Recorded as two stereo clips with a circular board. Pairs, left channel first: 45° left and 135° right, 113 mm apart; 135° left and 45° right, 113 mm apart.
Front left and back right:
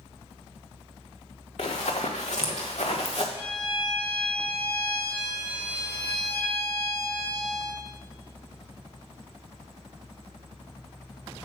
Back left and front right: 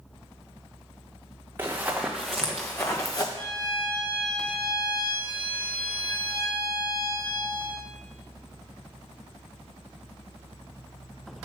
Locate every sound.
1.6 s running footsteps: 25° left, 1.6 m; by 3.2 s 80° left, 1.5 m
3.4 s a violin: 80° left, 3 m